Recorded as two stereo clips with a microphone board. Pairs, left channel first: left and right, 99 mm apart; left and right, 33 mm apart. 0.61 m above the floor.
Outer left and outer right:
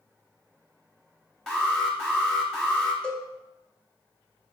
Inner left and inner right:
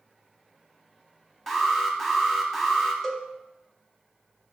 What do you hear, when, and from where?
1.5 s an alarm: centre (ahead or behind), 0.9 m
3.0 s a cowbell: 10° left (ahead or behind), 0.6 m